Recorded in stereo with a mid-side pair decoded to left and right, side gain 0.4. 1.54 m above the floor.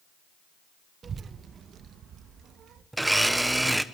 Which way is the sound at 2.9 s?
10° right.